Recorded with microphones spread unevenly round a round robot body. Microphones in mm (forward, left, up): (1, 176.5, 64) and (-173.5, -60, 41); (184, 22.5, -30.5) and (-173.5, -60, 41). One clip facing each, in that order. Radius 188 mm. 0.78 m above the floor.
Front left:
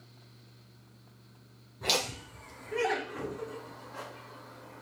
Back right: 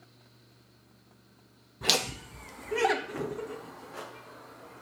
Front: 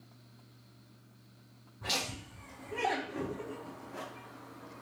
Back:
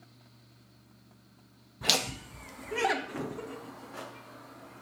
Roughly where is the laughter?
Behind.